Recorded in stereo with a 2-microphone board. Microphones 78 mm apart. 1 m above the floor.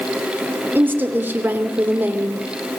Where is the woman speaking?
25° right (ahead or behind), 2.5 m.